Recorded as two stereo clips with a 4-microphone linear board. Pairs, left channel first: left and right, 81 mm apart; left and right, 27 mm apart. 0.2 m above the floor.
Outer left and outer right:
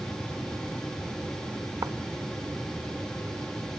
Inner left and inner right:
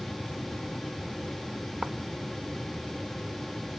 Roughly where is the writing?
Right.